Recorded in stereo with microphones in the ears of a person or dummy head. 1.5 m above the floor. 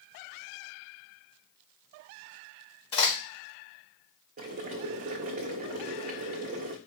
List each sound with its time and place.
2.9 s a crack: 30° left (ahead or behind), 1.8 m
4.4 s boiling: 45° right (ahead or behind), 0.7 m